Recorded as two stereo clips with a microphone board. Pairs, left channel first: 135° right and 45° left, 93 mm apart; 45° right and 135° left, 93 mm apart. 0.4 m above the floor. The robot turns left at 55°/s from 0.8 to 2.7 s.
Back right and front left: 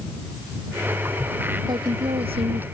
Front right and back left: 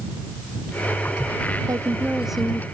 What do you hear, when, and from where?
1.7 s a woman speaking: 85° left; by 2.6 s 30° left